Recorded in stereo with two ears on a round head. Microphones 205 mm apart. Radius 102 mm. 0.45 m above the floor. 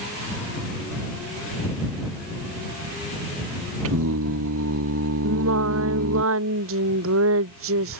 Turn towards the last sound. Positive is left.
turn(degrees=-65)  # may be behind; listen again after turning